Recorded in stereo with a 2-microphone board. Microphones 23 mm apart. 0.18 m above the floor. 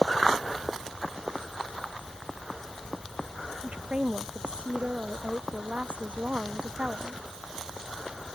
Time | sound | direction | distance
3.6 | a woman speaking | 55° right (ahead or behind) | ?